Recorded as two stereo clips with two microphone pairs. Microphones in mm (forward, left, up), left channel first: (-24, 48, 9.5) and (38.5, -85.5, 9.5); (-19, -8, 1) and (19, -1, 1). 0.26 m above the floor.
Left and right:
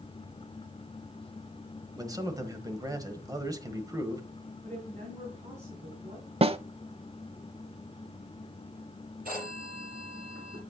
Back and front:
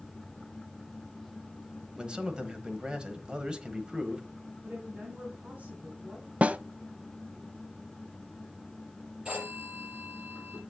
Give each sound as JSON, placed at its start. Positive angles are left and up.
{"t": 2.0, "sound": "a man speaking", "azimuth_deg": -30, "distance_m": 1.2}
{"t": 4.6, "sound": "a woman speaking", "azimuth_deg": -30, "distance_m": 3.0}
{"t": 6.4, "sound": "a snare drum", "azimuth_deg": -30, "distance_m": 0.5}
{"t": 9.2, "sound": "a phone ringing", "azimuth_deg": -50, "distance_m": 6.0}